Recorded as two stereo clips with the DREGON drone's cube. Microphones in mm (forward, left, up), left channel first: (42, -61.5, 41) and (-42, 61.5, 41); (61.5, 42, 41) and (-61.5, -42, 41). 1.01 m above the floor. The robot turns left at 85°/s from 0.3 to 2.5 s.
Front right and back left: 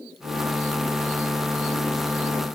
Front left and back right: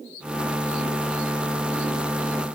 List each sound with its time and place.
Only background noise.